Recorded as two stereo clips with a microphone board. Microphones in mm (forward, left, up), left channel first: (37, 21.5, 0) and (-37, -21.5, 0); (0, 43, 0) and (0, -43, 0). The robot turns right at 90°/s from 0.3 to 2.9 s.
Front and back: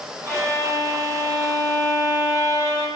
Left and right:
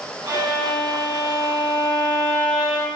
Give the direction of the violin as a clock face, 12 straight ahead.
1 o'clock.